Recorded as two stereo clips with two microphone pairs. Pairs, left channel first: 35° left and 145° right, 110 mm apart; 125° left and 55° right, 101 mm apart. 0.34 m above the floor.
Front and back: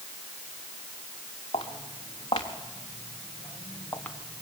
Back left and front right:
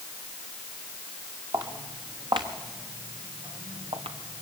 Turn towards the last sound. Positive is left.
turn(degrees=-50)